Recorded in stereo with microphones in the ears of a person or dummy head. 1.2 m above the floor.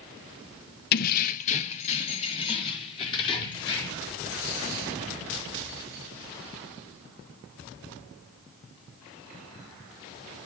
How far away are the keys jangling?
About 0.7 m.